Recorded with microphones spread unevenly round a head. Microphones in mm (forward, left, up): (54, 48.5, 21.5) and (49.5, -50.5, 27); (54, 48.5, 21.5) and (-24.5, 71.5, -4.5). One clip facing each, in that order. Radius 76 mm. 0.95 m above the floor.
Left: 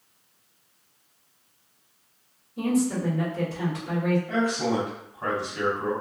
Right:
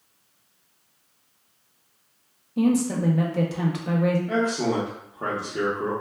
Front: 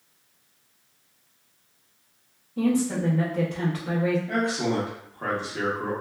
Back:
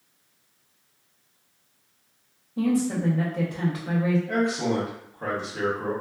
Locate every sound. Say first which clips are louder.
2.6 s a woman speaking: right 3 dB, even; 120° right, 0.6 m
4.3 s a man speaking: right 1 dB, back 1 dB; 105° right, 0.8 m